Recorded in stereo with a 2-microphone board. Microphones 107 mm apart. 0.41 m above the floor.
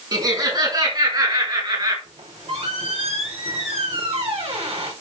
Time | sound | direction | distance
0.1 | laughter | 40° right (ahead or behind) | 5 m
2.0 | a squeak | 60° right (ahead or behind) | 6.5 m